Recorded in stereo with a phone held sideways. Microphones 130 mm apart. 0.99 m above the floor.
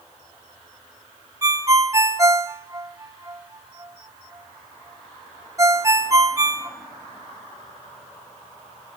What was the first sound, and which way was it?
A ringtone, 25° right (ahead or behind).